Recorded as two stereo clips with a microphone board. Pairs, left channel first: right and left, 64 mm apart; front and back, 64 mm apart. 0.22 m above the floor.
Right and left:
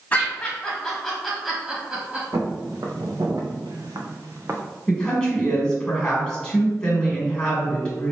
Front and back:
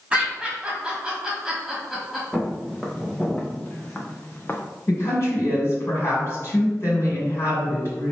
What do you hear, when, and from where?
0.1 s laughter: 125° right, 1.6 m; by 2.2 s 100° left, 1.5 m
2.3 s footsteps: 90° left, 1.7 m; by 4.6 s 50° left, 0.8 m
4.9 s a woman speaking: 15° right, 1.8 m